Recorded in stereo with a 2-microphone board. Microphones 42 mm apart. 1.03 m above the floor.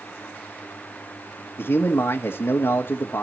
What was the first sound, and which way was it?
A man speaking, 80° left.